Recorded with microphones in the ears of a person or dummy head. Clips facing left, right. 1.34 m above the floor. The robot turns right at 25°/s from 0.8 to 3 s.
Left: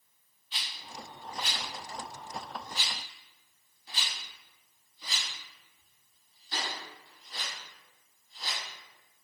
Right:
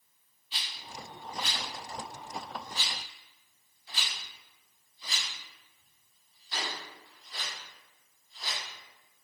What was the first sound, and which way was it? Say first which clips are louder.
A rattle: even; 5° right (ahead or behind).